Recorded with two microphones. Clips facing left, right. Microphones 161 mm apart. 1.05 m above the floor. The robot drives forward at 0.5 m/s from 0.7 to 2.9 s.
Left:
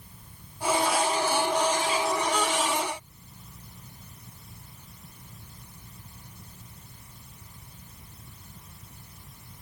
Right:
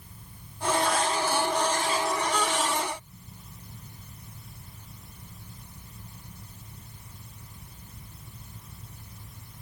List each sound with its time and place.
Only background noise.